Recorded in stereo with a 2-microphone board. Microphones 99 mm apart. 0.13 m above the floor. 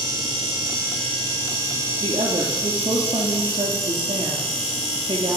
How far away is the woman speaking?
About 2.5 m.